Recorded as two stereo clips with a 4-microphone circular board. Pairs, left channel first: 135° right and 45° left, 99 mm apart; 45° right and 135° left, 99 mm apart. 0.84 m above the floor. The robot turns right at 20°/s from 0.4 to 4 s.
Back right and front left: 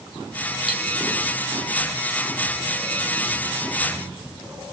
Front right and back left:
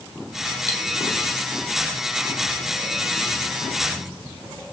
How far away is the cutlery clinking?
About 1.2 m.